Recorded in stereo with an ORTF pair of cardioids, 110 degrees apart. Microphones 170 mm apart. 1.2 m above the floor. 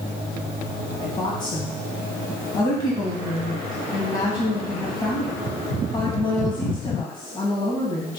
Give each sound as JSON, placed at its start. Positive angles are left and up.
{"t": 1.0, "sound": "a woman speaking", "azimuth_deg": 25, "distance_m": 2.0}